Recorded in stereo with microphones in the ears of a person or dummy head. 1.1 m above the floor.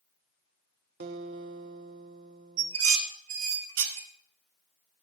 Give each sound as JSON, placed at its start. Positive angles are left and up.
{"t": 1.0, "sound": "a guitar", "side_deg": -50, "distance_m": 1.0}
{"t": 2.6, "sound": "dishes clattering", "side_deg": -85, "distance_m": 1.7}